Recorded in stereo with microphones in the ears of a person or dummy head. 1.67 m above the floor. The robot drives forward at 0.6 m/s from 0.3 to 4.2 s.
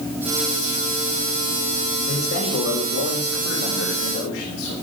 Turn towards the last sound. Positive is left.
turn(degrees=70)  # may be behind; listen again after turning